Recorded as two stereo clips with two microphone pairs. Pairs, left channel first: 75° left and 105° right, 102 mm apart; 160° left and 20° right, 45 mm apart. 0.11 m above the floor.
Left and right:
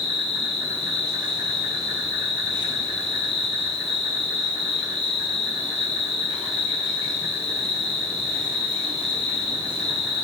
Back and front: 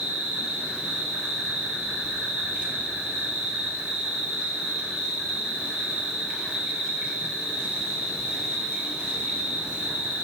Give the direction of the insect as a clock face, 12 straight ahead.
3 o'clock.